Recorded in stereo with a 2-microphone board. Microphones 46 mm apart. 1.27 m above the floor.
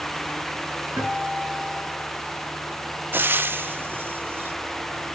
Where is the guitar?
60° right (ahead or behind), 7.5 m.